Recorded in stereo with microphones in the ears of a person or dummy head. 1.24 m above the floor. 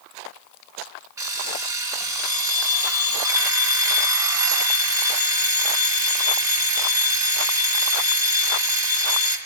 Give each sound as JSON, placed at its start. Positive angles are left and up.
{"t": 1.2, "sound": "an alarm clock", "side_deg": -20, "distance_m": 1.7}